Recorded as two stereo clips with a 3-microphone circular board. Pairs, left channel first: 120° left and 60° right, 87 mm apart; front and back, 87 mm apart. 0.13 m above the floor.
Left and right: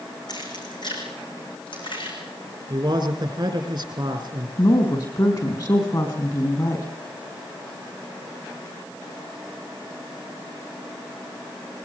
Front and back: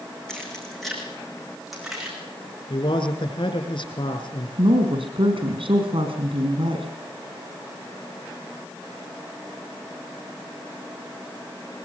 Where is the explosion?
I don't hear an explosion.